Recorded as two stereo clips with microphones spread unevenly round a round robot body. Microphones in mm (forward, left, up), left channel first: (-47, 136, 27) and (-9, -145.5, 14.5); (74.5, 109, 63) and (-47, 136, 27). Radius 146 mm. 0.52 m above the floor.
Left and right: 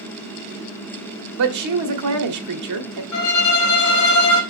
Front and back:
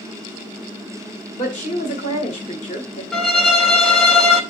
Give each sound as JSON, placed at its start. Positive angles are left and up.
{"t": 1.4, "sound": "a woman speaking", "azimuth_deg": -65, "distance_m": 1.6}
{"t": 3.1, "sound": "a violin", "azimuth_deg": 85, "distance_m": 2.0}